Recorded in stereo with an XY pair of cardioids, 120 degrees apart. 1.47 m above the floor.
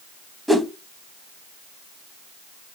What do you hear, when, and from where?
0.5 s a whoosh: 5° right, 0.6 m